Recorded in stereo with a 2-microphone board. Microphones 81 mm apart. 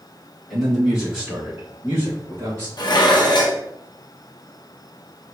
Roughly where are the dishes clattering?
Left.